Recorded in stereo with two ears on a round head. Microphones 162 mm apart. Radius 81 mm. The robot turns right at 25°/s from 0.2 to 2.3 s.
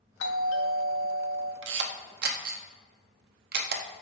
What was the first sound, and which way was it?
A doorbell, 75° left.